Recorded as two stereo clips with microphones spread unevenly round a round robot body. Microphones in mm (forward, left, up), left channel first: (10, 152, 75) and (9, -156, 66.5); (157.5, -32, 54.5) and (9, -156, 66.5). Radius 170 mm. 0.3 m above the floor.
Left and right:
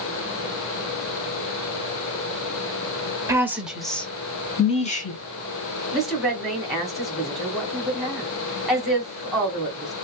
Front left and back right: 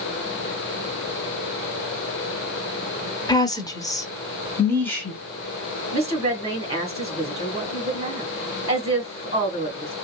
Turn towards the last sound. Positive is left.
turn(degrees=-175)